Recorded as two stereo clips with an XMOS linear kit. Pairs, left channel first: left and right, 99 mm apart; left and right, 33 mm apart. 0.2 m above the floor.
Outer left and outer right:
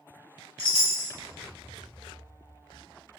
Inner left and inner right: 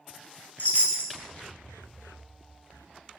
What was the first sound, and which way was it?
A chime, 65° left (ahead or behind).